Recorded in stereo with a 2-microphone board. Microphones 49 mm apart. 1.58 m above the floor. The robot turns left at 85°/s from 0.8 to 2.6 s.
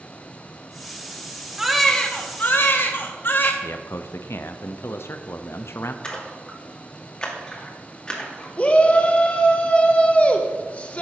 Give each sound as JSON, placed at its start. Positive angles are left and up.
{"t": 1.6, "sound": "a baby crying", "azimuth_deg": -170, "distance_m": 1.3}
{"t": 3.6, "sound": "a man speaking", "side_deg": 60, "distance_m": 0.6}
{"t": 6.0, "sound": "a splash", "side_deg": 20, "distance_m": 2.0}
{"t": 8.6, "sound": "a shout", "side_deg": 30, "distance_m": 0.8}